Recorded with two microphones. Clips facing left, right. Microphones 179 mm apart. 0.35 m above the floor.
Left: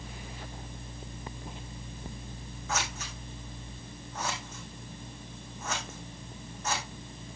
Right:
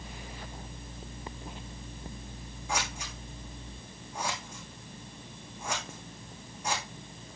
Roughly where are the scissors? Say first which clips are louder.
Even; centre.